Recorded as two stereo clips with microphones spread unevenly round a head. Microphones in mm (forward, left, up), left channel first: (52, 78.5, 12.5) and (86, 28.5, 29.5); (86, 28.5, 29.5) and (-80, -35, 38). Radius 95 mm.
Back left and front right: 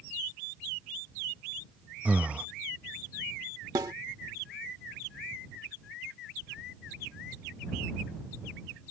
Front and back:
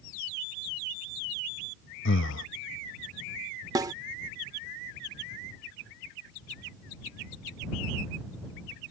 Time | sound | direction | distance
2.0 | breathing | 5° left | ?
3.8 | a snare drum | 90° right | ?